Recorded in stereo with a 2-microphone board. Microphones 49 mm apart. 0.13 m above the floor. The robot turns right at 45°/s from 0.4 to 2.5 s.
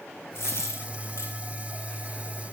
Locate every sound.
0.3 s a dropped coin: 60° left (ahead or behind), 4 m; by 1.3 s 75° left (ahead or behind), 4 m